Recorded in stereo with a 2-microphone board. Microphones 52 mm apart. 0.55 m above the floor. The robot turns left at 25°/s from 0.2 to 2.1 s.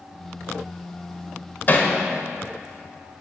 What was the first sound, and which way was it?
Hammering, 40° left (ahead or behind).